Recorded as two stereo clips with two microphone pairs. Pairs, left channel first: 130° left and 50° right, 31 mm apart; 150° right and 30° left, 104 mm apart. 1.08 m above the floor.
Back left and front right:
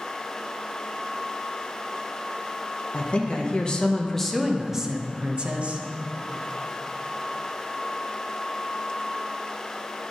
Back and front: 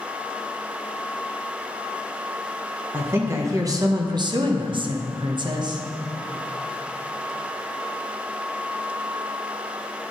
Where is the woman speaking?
100° left, 1.1 m; by 5.8 s 10° right, 1.0 m.